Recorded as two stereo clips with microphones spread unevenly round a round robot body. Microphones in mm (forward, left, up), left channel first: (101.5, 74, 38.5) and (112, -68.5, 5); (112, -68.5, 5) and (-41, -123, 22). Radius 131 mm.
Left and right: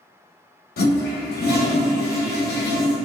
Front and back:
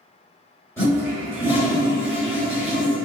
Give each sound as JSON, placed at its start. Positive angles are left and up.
{"t": 0.8, "sound": "a toilet flushing", "azimuth_deg": 100, "distance_m": 0.9}